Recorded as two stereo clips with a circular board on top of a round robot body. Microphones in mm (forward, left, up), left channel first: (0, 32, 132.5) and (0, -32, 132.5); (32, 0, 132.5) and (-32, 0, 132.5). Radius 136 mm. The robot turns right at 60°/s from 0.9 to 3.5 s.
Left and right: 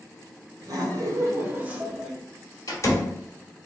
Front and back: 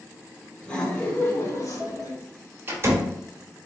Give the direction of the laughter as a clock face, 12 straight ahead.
2 o'clock.